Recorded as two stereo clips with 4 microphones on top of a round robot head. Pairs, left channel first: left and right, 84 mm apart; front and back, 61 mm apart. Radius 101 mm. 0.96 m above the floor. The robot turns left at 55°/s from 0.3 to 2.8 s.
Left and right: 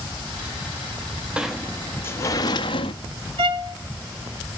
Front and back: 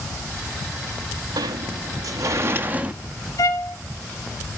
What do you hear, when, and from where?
1.4 s a sliding door: 170° right, 0.6 m; by 2.9 s 110° left, 0.6 m
3.4 s a violin: 55° right, 0.6 m